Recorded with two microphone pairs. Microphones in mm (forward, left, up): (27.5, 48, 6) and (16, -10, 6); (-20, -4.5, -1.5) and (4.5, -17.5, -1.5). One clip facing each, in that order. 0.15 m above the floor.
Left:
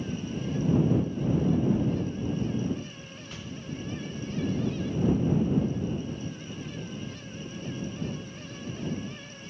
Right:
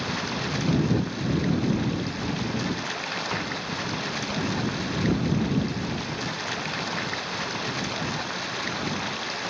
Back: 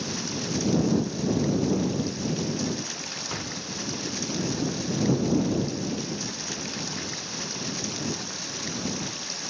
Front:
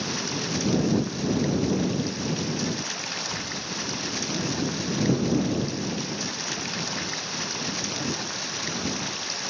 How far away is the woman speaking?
No woman speaking in this recording.